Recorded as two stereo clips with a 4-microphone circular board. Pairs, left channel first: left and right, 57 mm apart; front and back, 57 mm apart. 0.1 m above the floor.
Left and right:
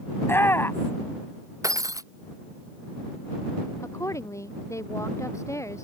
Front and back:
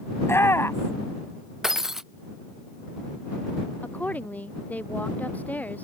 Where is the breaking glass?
100° right.